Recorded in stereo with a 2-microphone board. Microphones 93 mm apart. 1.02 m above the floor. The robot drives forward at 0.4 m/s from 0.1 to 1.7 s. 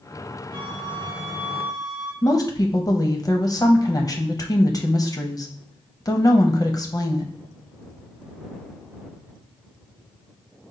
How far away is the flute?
About 2.0 m.